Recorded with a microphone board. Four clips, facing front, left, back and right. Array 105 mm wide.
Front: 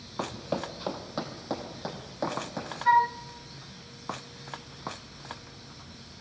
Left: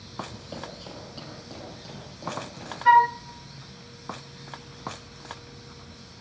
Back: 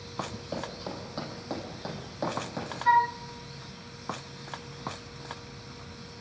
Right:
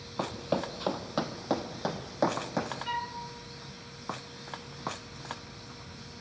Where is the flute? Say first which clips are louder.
Left 18 dB, front 1 dB; 90° left, 0.9 m.